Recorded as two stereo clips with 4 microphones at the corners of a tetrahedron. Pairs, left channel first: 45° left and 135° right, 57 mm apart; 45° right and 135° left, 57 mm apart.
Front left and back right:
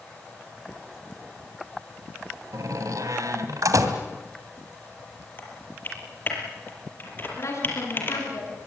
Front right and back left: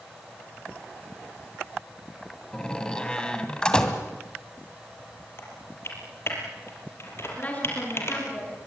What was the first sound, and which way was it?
A door slam, 120° right.